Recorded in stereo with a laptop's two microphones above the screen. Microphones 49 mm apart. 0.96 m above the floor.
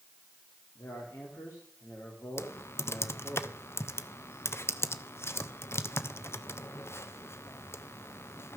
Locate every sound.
0.8 s a man speaking: 85° left, 1.9 m
2.4 s typing on a keyboard: 60° left (ahead or behind), 0.5 m